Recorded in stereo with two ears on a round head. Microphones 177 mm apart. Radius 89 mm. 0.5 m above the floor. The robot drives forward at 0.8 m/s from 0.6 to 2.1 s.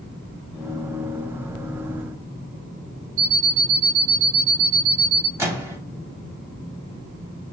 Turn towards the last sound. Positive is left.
turn(degrees=-15)  # may be behind; listen again after turning